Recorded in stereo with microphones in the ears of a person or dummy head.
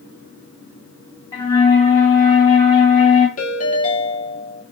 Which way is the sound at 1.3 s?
10° left (ahead or behind).